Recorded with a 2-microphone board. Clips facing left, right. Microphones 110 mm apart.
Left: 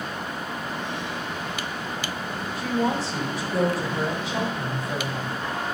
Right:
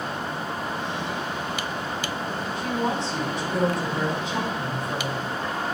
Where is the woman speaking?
5° left (ahead or behind), 4.5 m.